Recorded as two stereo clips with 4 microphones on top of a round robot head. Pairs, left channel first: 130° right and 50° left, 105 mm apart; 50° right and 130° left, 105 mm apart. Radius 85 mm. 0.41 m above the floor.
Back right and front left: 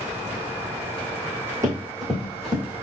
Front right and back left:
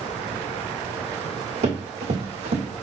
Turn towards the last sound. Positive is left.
turn(degrees=110)